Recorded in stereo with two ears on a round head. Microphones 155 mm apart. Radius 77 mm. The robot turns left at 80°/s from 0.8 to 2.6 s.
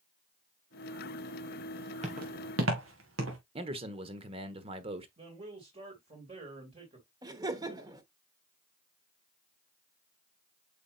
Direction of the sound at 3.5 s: 30° right (ahead or behind).